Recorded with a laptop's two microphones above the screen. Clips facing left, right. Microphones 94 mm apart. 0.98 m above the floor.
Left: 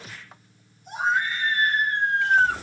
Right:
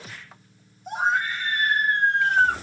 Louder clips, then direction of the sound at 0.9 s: Right 1 dB; 70° right (ahead or behind).